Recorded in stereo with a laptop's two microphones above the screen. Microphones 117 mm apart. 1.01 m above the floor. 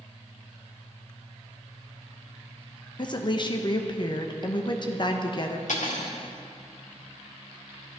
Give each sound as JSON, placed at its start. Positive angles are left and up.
{"t": 3.0, "sound": "a woman speaking", "side_deg": 35, "distance_m": 0.8}
{"t": 5.7, "sound": "cutlery clinking", "side_deg": 90, "distance_m": 1.7}